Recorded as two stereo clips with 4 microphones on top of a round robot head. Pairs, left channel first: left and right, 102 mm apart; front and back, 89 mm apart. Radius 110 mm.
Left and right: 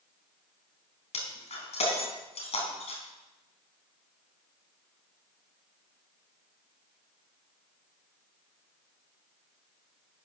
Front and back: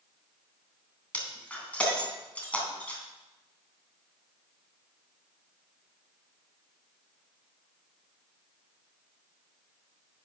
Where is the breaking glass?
75° left, 3 m.